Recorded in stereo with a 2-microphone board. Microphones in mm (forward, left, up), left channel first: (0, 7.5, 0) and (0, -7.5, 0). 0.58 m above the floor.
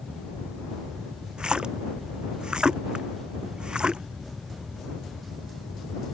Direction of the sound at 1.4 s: 65° right (ahead or behind).